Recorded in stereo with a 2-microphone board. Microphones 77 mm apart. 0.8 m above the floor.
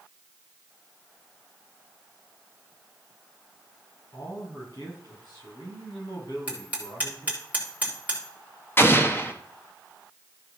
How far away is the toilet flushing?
I don't hear a toilet flushing.